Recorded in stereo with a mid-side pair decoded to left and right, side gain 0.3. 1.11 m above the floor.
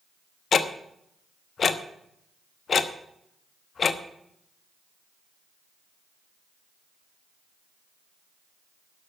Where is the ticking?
65° left, 1.0 m.